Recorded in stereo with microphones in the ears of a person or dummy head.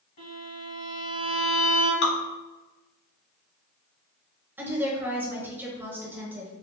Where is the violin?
45° left (ahead or behind), 1.8 m.